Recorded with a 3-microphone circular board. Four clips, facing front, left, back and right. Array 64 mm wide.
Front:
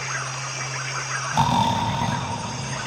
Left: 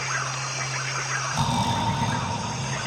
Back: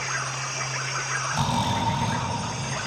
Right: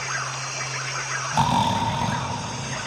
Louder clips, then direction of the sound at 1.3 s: Right 6 dB, front 7 dB; 40° right.